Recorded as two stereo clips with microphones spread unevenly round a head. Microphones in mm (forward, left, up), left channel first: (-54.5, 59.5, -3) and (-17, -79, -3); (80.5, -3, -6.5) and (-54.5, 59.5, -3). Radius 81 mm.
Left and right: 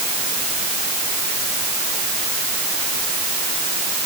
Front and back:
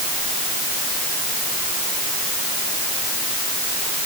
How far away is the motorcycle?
I don't hear a motorcycle.